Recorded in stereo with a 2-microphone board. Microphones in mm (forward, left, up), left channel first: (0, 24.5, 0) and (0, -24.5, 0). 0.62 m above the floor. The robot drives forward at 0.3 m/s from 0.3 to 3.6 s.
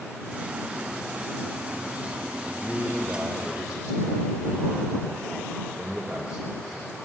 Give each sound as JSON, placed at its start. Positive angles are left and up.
{"t": 2.5, "sound": "a man speaking", "side_deg": -15, "distance_m": 2.5}